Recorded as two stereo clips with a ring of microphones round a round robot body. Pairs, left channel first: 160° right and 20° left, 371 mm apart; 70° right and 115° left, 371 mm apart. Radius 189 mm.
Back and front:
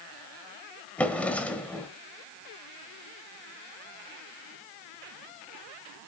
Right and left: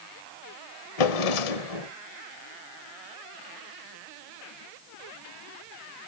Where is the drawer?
70° right, 1.3 m.